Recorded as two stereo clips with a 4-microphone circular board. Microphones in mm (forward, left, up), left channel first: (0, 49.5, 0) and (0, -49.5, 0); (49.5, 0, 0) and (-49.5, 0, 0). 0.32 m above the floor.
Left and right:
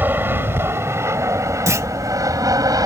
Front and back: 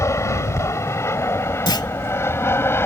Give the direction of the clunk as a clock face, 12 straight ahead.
1 o'clock.